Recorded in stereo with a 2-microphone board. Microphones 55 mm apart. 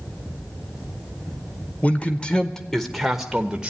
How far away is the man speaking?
About 1.3 m.